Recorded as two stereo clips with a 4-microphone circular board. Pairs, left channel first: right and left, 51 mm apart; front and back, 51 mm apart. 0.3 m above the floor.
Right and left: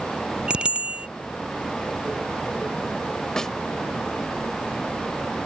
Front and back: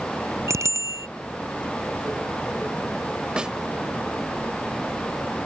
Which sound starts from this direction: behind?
A bicycle bell, at 0.5 s.